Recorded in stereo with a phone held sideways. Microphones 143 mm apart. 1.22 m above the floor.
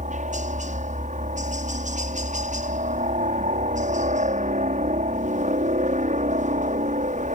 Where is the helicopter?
60° right (ahead or behind).